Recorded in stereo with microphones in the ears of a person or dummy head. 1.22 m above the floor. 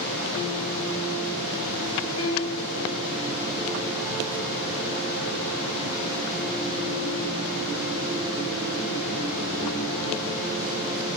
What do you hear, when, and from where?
2.2 s a piano: 75° left (ahead or behind), 1.7 m